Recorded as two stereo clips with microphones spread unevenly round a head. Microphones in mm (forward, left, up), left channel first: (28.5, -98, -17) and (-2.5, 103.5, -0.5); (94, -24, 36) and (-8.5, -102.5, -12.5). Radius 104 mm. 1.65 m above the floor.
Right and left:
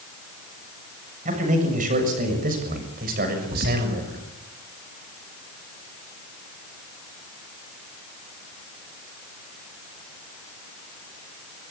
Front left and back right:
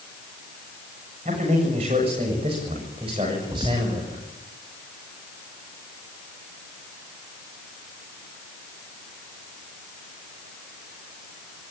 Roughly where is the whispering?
Behind left.